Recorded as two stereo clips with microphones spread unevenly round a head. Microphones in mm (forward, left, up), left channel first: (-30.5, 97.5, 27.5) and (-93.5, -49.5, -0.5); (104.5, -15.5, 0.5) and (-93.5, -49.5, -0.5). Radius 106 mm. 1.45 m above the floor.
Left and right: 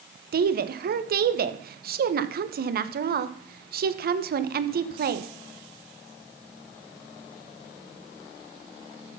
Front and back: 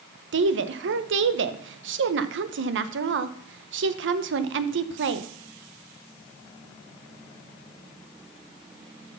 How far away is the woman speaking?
About 1.0 m.